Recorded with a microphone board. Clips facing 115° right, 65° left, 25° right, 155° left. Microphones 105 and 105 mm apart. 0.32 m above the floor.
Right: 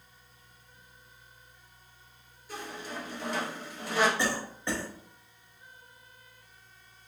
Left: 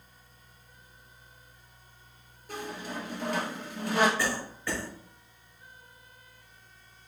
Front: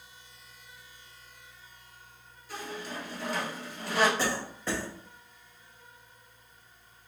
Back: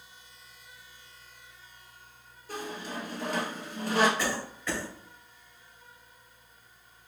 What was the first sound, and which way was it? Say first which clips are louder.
A squeak: left 2 dB, back 2 dB; 110° left.